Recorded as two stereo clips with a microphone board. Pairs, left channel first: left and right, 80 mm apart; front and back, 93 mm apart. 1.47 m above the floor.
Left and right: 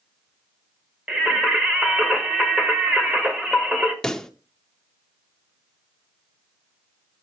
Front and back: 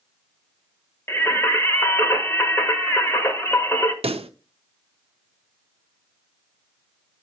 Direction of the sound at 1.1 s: 25° right.